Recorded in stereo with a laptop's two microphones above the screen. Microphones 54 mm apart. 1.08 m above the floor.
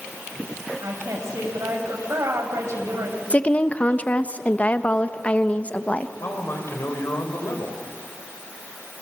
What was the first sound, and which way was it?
A woman speaking, 70° right (ahead or behind).